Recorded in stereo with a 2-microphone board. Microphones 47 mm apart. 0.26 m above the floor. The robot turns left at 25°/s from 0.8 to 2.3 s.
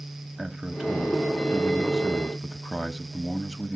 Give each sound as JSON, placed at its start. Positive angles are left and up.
{"t": 0.4, "sound": "a man speaking", "azimuth_deg": -165, "distance_m": 1.0}